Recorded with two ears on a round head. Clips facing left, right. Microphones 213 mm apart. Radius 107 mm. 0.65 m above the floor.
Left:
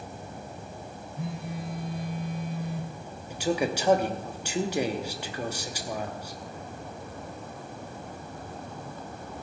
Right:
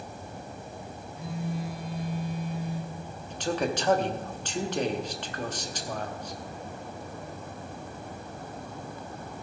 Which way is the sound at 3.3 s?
10° left (ahead or behind).